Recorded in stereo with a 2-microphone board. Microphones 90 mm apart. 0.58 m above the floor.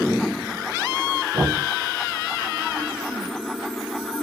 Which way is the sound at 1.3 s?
60° right (ahead or behind).